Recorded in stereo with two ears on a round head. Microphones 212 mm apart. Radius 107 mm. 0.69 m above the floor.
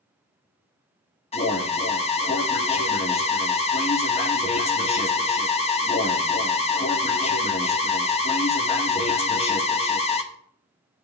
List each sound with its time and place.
1.3 s an alarm: 30° left (ahead or behind), 1.2 m